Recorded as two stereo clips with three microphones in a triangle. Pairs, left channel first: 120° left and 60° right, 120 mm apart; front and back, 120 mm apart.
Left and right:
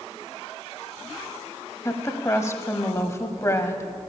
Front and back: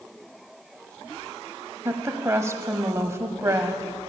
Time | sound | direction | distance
1.9 | a woman speaking | 150° left | 1.1 m